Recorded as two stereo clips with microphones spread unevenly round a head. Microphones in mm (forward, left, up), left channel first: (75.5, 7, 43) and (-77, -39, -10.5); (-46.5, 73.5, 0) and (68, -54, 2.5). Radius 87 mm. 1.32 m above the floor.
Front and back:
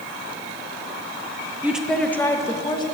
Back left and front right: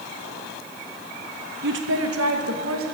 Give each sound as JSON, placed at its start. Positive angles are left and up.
{"t": 1.6, "sound": "a woman speaking", "azimuth_deg": -80, "distance_m": 0.9}